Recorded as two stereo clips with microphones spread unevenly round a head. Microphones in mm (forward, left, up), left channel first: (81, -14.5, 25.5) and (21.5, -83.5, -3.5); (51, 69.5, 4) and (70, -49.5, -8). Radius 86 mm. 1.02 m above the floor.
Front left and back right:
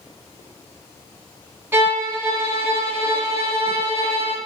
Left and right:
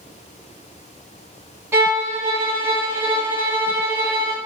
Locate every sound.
1.7 s a violin: 140° right, 0.8 m